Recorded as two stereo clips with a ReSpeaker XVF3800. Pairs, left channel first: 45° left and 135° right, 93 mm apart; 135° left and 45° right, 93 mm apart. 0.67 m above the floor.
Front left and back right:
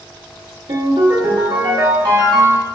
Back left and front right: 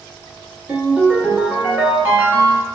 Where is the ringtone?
115° right, 0.9 m.